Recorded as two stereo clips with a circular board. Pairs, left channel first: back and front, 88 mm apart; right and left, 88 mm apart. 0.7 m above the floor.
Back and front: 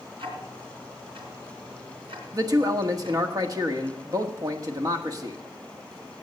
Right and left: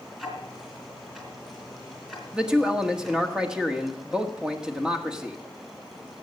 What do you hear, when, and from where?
0.2 s ticking: straight ahead, 3 m
2.3 s a man speaking: 10° left, 1.5 m